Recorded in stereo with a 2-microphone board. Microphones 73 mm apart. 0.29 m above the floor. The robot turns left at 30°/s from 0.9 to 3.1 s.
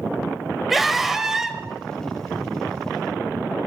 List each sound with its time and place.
0.7 s a scream: centre (ahead or behind), 1.5 m; by 1.6 s 10° right (ahead or behind), 1.5 m